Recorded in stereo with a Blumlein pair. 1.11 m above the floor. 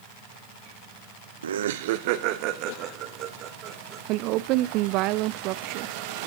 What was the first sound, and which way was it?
Laughter, 65° right.